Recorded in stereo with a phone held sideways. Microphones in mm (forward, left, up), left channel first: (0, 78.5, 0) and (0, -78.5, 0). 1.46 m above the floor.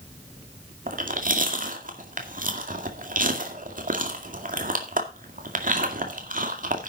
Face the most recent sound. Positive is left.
turn(degrees=-55)  # may be behind; listen again after turning